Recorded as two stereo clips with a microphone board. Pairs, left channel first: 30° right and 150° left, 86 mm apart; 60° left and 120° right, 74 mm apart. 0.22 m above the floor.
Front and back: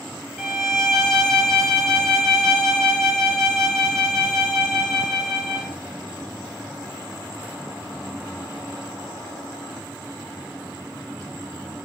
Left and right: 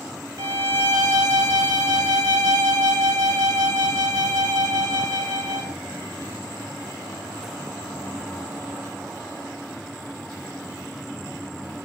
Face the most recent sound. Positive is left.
turn(degrees=-110)